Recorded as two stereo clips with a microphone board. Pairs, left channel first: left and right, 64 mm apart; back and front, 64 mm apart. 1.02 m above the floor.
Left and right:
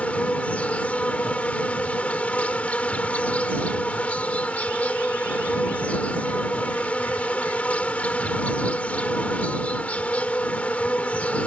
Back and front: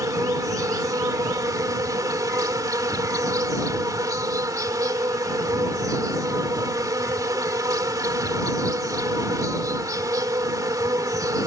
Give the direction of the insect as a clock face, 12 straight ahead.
11 o'clock.